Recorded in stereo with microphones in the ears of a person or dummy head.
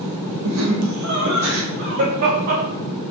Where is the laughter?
80° right, 1.6 m; by 2.6 s 50° right (ahead or behind), 2.5 m.